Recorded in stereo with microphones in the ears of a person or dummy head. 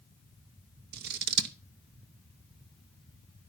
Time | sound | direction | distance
0.9 | scissors | 60° right (ahead or behind) | 1.0 m